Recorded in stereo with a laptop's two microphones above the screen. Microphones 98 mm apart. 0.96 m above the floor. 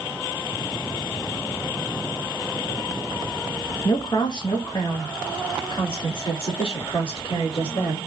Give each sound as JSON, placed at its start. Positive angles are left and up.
{"t": 3.9, "sound": "a woman speaking", "side_deg": 40, "distance_m": 0.8}